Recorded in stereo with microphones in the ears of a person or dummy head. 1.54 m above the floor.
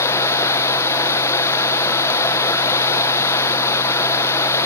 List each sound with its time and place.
0.0 s running water: 20° left (ahead or behind), 1.2 m